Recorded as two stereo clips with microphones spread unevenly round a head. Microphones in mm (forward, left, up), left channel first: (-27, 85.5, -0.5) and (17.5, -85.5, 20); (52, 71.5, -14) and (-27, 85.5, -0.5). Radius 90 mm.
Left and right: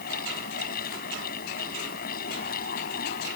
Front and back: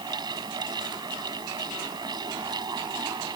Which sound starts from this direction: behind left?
A fan, at 0.0 s.